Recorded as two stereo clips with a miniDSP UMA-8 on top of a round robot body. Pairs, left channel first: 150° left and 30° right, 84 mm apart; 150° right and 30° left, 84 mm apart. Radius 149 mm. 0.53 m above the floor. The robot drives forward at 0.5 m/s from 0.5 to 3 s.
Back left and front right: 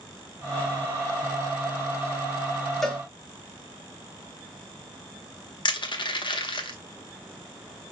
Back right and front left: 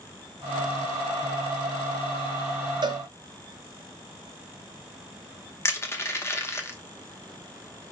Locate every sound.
2.8 s a cowbell: 65° left, 0.6 m; by 3.0 s 75° left, 0.5 m
5.7 s crushing: 155° left, 1.0 m